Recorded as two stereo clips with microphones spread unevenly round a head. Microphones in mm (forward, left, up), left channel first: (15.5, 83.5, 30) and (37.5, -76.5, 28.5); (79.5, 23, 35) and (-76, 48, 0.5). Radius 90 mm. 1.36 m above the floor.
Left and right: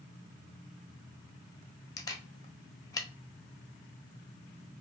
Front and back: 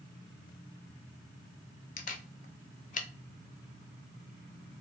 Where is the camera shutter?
30° left, 0.8 m.